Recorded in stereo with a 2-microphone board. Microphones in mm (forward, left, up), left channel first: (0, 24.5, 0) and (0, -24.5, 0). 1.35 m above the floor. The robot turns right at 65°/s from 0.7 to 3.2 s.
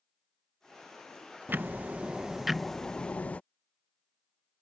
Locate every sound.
1.5 s ticking: 70° right; by 3.4 s 40° left